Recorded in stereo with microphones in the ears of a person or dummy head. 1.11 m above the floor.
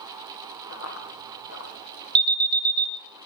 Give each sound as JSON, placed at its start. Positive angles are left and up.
{"t": 0.7, "sound": "running footsteps", "side_deg": 65, "distance_m": 3.0}
{"t": 2.1, "sound": "an alarm", "side_deg": -25, "distance_m": 1.0}